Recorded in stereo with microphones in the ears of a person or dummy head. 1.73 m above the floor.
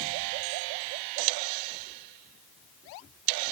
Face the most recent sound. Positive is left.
No sound to turn to.